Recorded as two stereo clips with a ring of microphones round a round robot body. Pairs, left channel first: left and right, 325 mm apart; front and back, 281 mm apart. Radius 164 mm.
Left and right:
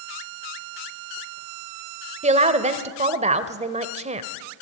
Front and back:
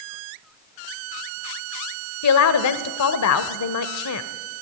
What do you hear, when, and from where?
2.2 s a woman speaking: 20° right, 1.4 m